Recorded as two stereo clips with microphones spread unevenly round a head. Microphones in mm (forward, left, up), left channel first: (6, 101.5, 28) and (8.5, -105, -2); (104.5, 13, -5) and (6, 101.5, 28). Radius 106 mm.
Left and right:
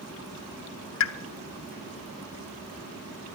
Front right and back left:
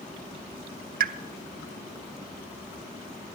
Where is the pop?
125° left, 0.8 m.